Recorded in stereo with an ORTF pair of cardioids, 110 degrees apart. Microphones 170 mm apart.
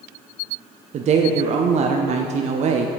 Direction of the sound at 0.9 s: 45° right.